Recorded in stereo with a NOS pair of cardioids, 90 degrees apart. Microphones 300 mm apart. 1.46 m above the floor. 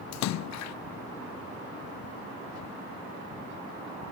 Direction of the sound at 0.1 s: 65° left.